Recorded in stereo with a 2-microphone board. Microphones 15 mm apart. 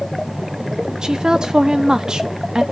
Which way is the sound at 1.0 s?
55° right (ahead or behind).